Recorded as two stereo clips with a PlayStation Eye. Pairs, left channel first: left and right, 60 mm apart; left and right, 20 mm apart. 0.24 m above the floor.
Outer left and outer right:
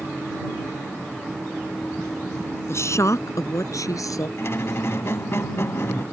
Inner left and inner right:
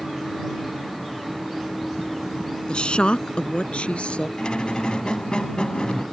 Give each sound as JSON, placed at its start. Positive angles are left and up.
{"t": 2.7, "sound": "a woman speaking", "side_deg": 50}
{"t": 4.4, "sound": "a squeak", "side_deg": 50}